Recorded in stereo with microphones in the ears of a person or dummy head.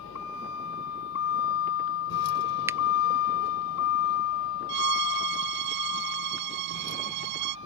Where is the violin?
60° right (ahead or behind).